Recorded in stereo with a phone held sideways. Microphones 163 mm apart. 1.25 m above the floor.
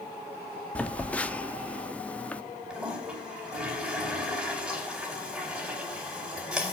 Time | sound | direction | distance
0.8 | a phone buzzing | 10° left (ahead or behind) | 0.7 m
2.7 | a toilet flushing | 5° right (ahead or behind) | 4.5 m